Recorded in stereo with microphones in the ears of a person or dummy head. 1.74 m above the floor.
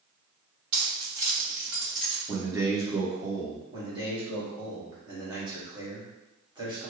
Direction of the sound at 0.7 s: 40° right (ahead or behind).